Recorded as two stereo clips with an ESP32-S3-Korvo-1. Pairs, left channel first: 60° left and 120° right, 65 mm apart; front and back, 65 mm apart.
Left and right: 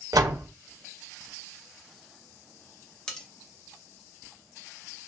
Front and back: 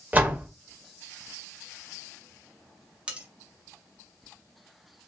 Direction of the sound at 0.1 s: 115° right.